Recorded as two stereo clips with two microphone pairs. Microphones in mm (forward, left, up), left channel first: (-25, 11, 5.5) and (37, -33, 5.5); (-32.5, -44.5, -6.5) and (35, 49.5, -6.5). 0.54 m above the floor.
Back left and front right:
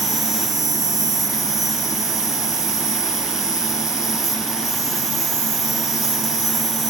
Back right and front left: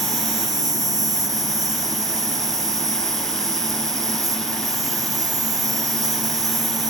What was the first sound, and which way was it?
An insect, 110° left.